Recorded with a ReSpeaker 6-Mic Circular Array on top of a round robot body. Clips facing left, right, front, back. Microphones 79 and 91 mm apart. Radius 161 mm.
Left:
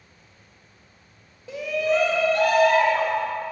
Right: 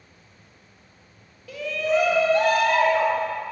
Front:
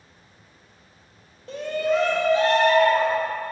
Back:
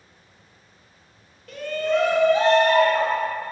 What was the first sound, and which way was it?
A shout, 40° left.